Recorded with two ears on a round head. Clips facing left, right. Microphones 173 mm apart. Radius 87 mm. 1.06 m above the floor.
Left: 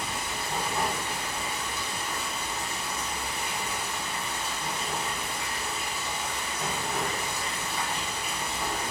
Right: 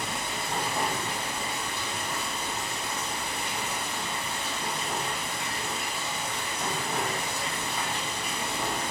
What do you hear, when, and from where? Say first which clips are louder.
0.0 s running water: right 1 dB; 25° right (ahead or behind), 1.9 m